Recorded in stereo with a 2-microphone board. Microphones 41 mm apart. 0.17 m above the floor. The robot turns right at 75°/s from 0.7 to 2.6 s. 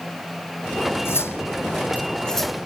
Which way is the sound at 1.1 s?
70° left (ahead or behind).